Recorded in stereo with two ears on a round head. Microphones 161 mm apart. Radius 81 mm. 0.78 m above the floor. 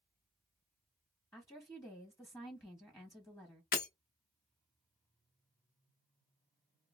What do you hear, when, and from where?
1.3 s a woman speaking: 15° left (ahead or behind), 0.8 m
3.7 s breaking glass: 55° left (ahead or behind), 0.6 m